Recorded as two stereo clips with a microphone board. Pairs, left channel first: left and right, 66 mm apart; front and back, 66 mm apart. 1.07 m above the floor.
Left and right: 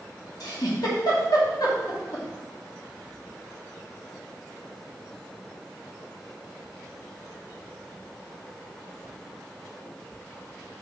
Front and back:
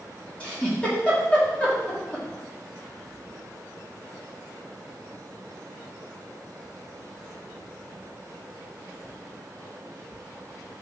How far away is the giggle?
About 2 m.